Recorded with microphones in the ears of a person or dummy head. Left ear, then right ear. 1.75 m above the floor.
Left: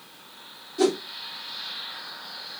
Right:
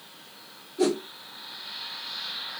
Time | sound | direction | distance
0.8 | a whoosh | 75° left (ahead or behind) | 2.5 m